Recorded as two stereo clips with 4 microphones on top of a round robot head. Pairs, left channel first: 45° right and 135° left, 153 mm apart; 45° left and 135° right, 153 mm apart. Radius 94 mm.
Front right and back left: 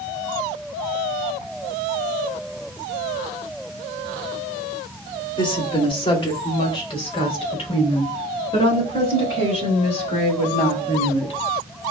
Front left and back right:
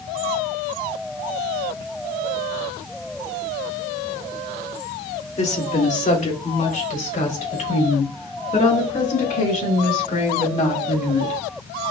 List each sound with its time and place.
5.4 s a woman speaking: 10° left, 1.9 m; by 11.4 s 5° left, 6 m